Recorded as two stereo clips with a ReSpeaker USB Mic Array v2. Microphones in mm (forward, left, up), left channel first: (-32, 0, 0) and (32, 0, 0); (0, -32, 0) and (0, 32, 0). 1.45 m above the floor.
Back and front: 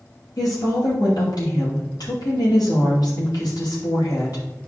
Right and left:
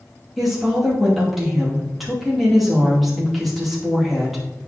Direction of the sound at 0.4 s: Straight behind.